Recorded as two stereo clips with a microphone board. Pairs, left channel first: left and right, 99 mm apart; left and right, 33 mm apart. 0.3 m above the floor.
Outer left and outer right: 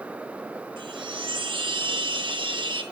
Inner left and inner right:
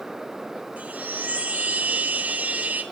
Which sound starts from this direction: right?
A chime, at 0.8 s.